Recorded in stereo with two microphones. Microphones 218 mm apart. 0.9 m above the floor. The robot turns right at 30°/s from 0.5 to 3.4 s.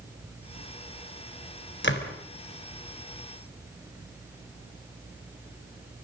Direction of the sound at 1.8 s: 55° left (ahead or behind).